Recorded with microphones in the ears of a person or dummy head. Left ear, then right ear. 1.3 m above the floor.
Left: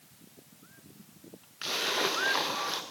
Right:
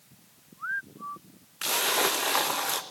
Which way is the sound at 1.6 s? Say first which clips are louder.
Right 4 dB; 20° right (ahead or behind).